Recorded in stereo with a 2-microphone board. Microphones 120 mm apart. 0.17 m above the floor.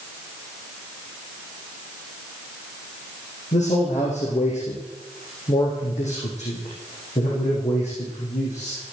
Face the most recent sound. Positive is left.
turn(degrees=70)  # may be behind; listen again after turning